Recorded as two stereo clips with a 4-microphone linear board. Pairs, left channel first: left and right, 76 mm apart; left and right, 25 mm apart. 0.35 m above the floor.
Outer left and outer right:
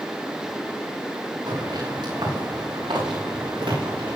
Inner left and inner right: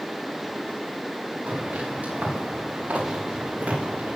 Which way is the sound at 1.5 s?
70° right (ahead or behind).